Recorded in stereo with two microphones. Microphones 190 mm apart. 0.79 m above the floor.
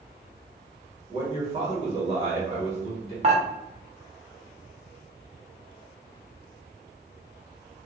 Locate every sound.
1.1 s a man speaking: 30° right (ahead or behind), 1.3 m
3.2 s dishes clattering: 35° right (ahead or behind), 0.8 m